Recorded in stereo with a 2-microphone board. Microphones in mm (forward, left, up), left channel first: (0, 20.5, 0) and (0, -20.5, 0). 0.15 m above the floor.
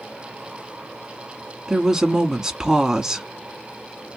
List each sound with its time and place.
1.7 s a woman speaking: 15° right (ahead or behind), 1.1 m